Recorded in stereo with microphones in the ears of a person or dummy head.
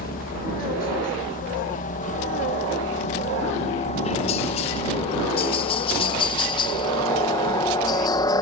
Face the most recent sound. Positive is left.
turn(degrees=20)  # may be behind; listen again after turning